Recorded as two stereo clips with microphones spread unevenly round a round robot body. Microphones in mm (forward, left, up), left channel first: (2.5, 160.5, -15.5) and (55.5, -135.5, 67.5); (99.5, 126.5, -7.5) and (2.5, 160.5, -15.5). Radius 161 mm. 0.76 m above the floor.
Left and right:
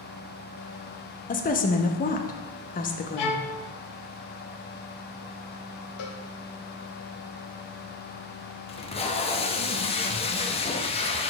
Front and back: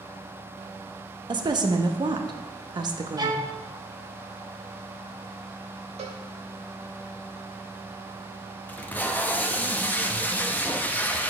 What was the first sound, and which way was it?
A woman speaking, 140° left.